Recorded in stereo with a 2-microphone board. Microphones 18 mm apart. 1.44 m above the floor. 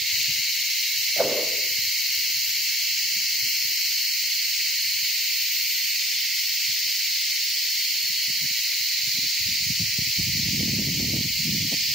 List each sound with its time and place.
1.2 s a whoosh: 85° right, 6 m